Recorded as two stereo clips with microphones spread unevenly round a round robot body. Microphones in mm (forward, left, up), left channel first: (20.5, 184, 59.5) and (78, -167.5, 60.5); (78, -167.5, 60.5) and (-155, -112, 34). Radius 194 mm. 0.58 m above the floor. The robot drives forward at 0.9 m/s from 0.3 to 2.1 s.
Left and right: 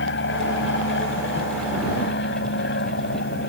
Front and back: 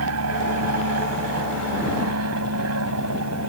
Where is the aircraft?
160° left.